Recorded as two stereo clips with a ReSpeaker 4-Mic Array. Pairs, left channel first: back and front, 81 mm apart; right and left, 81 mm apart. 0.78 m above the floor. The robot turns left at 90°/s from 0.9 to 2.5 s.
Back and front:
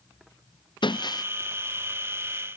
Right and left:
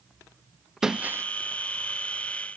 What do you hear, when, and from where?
0.8 s breaking glass: 170° left; by 1.2 s 140° left